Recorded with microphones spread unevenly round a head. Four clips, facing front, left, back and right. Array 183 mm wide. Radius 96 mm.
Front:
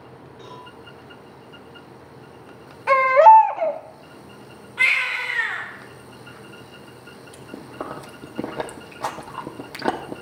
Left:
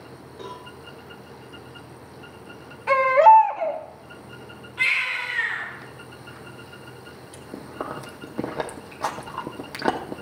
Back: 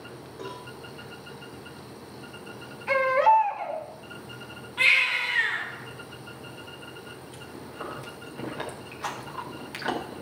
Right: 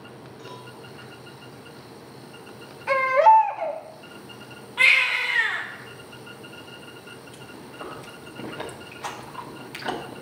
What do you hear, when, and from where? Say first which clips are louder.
0.4 s a cowbell: left 5 dB, back 2 dB; 135° left, 6.5 m
2.9 s a baby crying: left 3 dB, front 9 dB; 10° left, 1.2 m
4.8 s a baby crying: right 4 dB, front 2 dB; 95° right, 7.5 m
7.3 s chewing: left 8 dB, front 7 dB; 45° left, 1.2 m